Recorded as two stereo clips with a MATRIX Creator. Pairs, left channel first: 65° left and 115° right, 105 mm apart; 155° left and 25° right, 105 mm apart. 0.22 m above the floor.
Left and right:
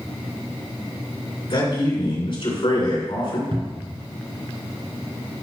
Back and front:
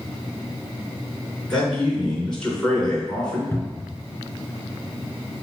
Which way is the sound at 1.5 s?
75° left.